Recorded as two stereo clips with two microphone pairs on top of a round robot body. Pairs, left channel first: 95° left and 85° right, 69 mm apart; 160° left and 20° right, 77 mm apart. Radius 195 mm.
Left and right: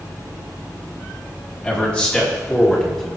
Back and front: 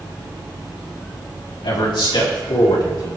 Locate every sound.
1.6 s a man speaking: 165° left, 3.5 m; by 3.1 s 175° left, 3 m